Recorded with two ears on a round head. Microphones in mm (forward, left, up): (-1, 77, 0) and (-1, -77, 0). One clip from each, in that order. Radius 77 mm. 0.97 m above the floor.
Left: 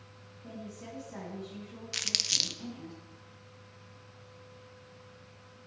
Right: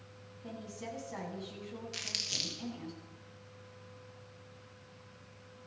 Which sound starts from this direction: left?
Crumpling, at 1.9 s.